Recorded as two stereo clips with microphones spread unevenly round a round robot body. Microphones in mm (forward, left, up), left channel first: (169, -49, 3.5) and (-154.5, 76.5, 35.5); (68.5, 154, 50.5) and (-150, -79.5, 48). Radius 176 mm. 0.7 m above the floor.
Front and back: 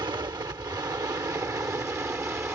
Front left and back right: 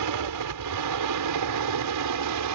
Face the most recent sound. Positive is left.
turn(degrees=-115)